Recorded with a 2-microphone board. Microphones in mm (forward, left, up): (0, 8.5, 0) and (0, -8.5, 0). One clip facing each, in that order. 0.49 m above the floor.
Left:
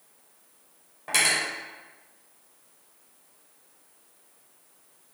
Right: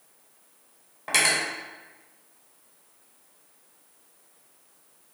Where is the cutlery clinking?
10° right (ahead or behind), 1.0 m.